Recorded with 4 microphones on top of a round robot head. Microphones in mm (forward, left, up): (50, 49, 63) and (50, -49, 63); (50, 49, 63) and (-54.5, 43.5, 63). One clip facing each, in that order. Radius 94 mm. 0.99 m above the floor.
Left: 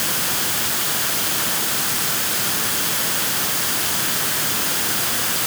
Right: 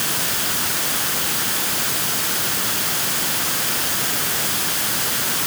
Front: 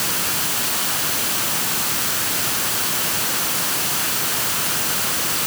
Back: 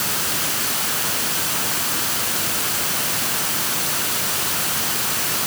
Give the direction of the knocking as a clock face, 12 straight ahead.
No knocking in this recording.